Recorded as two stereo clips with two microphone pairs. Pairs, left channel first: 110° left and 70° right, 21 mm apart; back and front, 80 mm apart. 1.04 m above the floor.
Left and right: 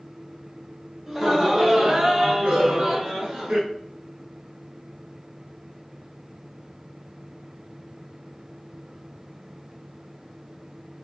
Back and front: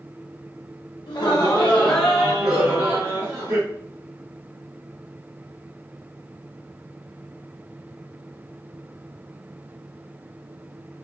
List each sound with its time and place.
1.1 s laughter: 155° right, 0.6 m; by 3.6 s 50° right, 1.1 m
2.6 s a cowbell: 25° left, 1.6 m